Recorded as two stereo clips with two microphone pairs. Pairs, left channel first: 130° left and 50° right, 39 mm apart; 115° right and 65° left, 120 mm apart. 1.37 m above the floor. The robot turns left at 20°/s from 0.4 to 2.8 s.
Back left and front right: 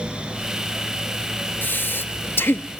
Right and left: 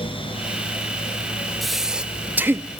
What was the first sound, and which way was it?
Breathing, 155° left.